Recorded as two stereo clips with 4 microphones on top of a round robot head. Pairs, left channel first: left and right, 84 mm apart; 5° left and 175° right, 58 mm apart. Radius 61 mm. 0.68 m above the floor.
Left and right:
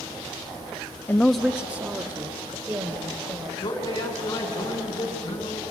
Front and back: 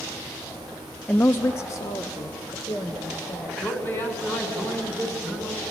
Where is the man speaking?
55° left, 5.5 m.